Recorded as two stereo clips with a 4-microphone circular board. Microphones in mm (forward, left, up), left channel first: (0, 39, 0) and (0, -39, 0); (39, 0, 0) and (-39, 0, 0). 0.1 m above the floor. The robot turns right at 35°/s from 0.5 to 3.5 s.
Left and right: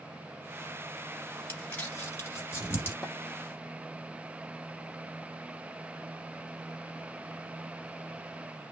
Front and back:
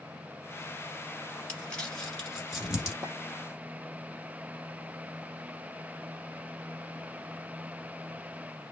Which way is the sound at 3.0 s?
165° left.